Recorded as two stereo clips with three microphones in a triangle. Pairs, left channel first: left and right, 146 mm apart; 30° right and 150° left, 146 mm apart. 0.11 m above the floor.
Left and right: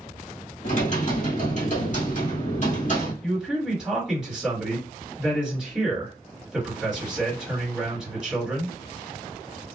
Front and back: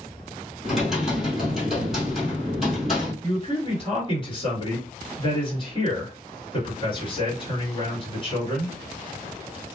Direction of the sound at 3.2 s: 5° right.